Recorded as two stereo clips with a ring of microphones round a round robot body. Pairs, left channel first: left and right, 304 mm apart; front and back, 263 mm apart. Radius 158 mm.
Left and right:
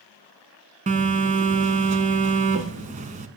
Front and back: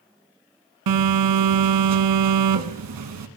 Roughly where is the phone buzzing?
Behind.